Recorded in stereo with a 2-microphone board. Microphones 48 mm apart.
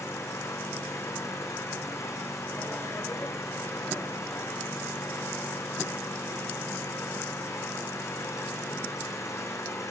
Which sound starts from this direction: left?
An engine running, at 0.0 s.